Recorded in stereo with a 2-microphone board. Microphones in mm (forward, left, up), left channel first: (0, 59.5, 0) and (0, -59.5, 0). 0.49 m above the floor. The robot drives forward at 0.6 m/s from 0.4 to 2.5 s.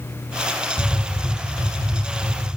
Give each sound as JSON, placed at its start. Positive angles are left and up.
{"t": 0.8, "sound": "tapping", "side_deg": 20, "distance_m": 1.0}